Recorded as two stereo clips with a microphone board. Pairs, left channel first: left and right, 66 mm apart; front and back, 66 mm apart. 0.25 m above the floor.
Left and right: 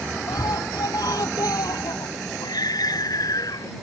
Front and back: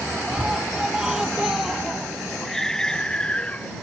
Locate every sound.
0.3 s a scream: 105° left; by 3.7 s 70° left